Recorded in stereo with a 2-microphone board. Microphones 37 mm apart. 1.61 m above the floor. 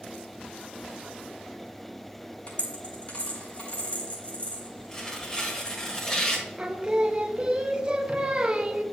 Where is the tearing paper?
20° left (ahead or behind), 1.5 m.